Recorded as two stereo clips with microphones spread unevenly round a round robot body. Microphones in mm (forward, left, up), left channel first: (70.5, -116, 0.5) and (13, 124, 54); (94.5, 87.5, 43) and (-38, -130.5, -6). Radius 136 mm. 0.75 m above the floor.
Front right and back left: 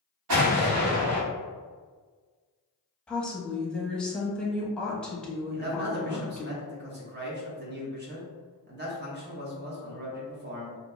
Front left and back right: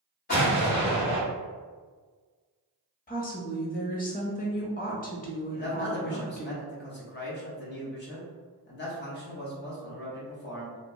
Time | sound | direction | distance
0.3 | an explosion | 120° left | 1.2 m
3.1 | a woman speaking | straight ahead | 0.8 m
5.5 | a man speaking | 80° left | 0.7 m